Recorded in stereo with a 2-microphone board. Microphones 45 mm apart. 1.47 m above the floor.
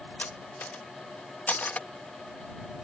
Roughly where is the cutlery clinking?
Left.